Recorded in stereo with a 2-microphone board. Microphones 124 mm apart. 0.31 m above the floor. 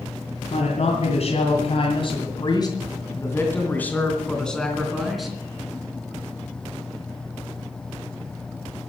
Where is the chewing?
I don't hear chewing.